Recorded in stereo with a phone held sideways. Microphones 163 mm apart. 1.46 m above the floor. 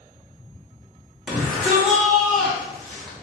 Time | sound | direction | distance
1.3 | a shout | centre (ahead or behind) | 1.8 m